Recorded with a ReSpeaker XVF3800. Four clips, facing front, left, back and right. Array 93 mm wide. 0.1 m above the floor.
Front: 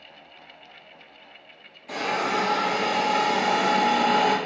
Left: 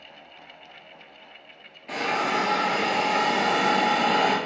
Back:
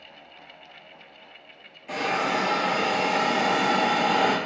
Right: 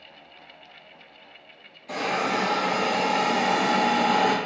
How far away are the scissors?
I don't hear scissors.